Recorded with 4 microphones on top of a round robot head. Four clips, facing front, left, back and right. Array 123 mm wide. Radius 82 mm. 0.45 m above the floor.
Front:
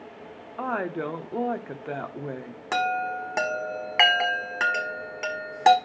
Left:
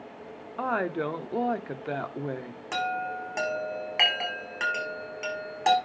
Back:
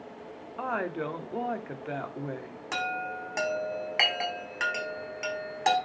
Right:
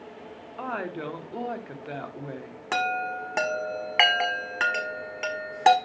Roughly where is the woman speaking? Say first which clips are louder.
Left 4 dB, front 3 dB; ahead left.